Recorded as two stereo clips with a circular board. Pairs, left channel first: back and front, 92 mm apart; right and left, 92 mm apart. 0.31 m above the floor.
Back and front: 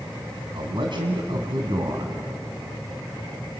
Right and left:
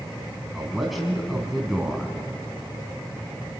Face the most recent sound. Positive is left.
turn(degrees=0)